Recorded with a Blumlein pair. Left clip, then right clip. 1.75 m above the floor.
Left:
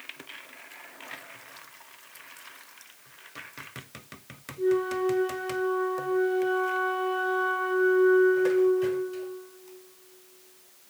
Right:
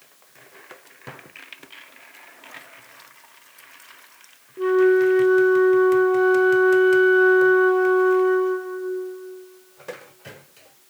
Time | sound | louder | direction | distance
4.6 | a flute | right 9 dB | 50° right | 1.1 m